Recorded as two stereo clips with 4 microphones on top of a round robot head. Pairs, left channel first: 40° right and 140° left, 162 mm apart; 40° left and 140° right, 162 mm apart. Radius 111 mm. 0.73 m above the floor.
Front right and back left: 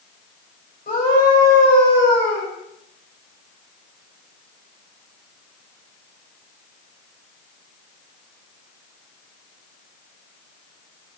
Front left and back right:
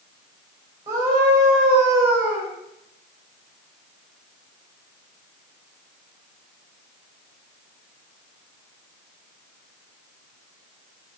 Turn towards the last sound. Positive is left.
turn(degrees=-70)